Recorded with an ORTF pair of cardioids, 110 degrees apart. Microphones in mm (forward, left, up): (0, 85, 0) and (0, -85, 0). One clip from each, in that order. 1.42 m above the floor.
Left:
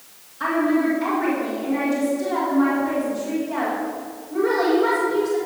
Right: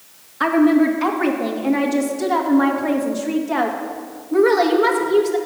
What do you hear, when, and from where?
0.4 s a woman speaking: 50° right, 1.9 m